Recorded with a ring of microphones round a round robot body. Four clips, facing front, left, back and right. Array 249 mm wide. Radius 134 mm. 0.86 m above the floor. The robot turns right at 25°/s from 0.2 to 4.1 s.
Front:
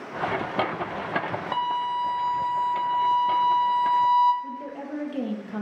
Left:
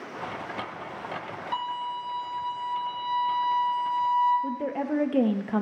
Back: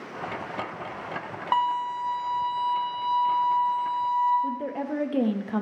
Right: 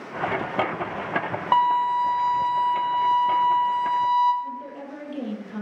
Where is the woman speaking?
115° left, 0.7 m.